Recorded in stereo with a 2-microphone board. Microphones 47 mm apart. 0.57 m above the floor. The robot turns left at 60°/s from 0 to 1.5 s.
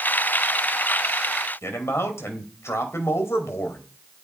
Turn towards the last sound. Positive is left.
turn(degrees=70)  # may be behind; listen again after turning